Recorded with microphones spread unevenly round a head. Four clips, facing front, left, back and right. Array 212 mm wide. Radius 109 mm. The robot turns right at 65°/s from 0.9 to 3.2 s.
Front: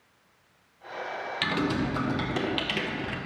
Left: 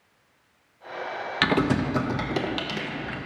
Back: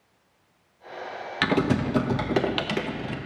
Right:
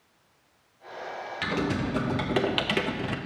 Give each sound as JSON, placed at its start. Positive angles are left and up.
{"t": 1.4, "sound": "typing on a keyboard", "azimuth_deg": 125, "distance_m": 0.6}